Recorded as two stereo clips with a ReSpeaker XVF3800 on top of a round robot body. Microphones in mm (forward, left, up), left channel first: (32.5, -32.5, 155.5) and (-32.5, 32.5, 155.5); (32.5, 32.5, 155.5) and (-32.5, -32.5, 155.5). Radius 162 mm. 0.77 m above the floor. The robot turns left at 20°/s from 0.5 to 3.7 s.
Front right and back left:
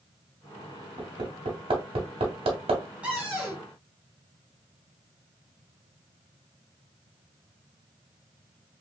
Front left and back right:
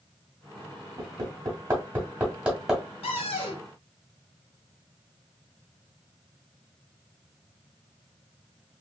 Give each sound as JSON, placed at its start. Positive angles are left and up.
{"t": 1.0, "sound": "hammering", "azimuth_deg": 175, "distance_m": 1.2}
{"t": 3.0, "sound": "a cupboard door", "azimuth_deg": 55, "distance_m": 0.6}